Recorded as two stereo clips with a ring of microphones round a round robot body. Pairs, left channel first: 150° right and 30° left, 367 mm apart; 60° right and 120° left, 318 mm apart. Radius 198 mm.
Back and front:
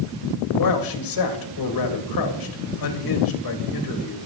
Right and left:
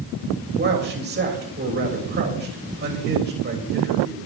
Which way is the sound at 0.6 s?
Straight behind.